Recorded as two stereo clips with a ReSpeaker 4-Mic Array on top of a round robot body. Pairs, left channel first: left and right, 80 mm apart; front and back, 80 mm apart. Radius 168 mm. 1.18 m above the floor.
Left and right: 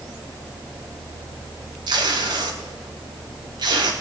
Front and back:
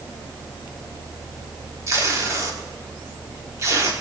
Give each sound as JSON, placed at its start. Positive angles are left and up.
{"t": 1.9, "sound": "tape being pulled", "azimuth_deg": -125, "distance_m": 1.3}